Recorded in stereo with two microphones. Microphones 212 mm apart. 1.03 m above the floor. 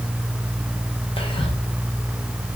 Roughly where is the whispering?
Left.